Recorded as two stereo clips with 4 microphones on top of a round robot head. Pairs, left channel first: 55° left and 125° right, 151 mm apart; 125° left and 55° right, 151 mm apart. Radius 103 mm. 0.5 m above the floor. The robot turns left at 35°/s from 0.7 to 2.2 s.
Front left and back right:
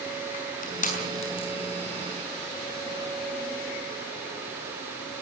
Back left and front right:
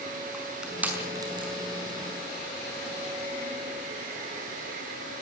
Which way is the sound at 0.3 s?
30° left.